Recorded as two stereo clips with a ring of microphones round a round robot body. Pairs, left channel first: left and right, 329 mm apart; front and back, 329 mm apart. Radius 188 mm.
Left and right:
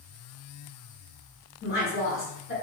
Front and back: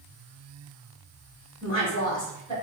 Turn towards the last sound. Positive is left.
turn(degrees=65)